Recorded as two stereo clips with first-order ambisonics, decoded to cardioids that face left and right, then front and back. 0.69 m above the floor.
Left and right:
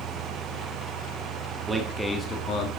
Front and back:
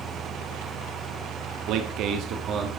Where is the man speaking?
160° right, 1.6 m; by 2.7 s 120° left, 1.5 m.